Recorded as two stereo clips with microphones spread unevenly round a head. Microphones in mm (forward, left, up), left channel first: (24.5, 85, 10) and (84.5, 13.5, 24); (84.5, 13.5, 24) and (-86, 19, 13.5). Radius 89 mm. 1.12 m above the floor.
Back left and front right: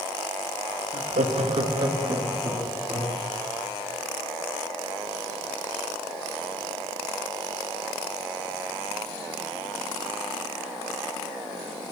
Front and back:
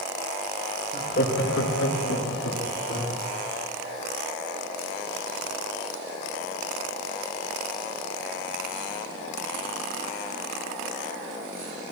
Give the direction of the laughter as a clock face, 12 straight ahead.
2 o'clock.